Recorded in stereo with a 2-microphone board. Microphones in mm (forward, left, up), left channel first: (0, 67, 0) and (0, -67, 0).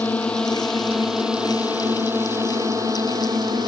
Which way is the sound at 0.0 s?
10° left (ahead or behind).